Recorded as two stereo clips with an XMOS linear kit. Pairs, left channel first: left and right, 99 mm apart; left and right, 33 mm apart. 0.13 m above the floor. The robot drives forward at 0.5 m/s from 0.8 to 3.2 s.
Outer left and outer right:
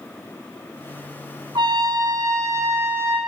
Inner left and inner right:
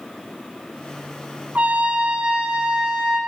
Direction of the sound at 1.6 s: 50° right (ahead or behind).